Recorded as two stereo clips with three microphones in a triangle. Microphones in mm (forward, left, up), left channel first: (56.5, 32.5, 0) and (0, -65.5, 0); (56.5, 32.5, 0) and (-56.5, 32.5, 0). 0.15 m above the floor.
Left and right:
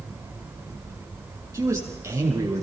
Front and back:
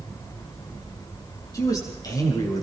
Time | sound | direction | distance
1.5 | a man speaking | 55° right | 6 m